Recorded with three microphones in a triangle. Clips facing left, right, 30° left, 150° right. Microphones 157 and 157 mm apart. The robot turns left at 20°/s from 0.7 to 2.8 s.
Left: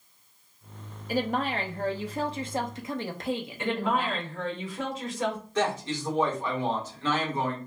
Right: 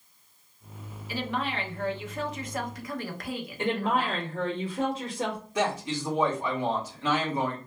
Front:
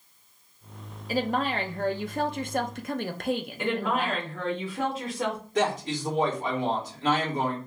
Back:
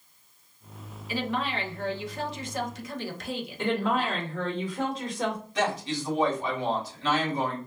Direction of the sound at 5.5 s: 15° right.